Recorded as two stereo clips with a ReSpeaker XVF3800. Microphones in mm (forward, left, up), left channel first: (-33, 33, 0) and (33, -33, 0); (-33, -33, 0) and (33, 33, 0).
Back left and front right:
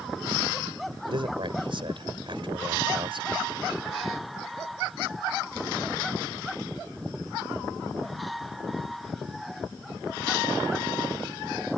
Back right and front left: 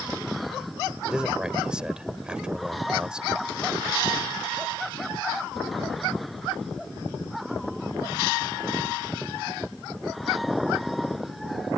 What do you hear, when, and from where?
1.1 s a man speaking: 35° right